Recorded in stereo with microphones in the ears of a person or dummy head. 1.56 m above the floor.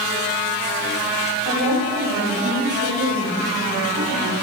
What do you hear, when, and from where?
1.4 s a woman speaking: 65° right (ahead or behind), 5.5 m; by 4.4 s 70° right (ahead or behind), 9 m